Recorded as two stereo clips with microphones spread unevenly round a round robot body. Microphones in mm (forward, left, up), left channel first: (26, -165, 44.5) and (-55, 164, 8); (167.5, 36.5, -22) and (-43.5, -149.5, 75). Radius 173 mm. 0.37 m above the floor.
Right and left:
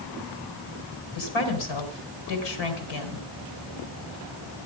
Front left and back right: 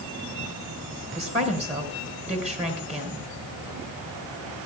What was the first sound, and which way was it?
A woman speaking, 65° right.